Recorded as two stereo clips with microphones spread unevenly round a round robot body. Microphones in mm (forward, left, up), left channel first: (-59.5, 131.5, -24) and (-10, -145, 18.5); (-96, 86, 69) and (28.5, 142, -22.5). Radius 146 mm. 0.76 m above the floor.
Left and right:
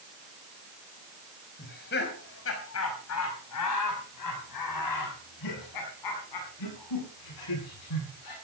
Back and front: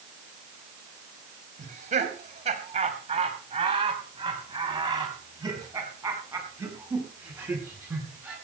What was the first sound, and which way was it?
Laughter, 40° left.